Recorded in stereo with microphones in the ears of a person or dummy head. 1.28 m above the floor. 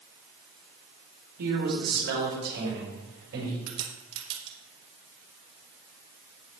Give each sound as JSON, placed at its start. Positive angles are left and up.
{"t": 1.4, "sound": "a man speaking", "side_deg": -65, "distance_m": 5.0}
{"t": 3.7, "sound": "a crack", "side_deg": -65, "distance_m": 3.5}